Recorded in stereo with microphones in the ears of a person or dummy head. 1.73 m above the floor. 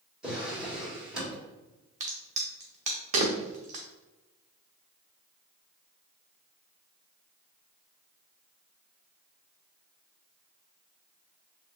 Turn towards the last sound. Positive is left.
turn(degrees=-40)  # may be behind; listen again after turning